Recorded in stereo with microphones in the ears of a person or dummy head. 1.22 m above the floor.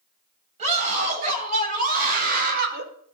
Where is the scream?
35° right (ahead or behind), 7 m; by 2.9 s 55° right (ahead or behind), 4 m.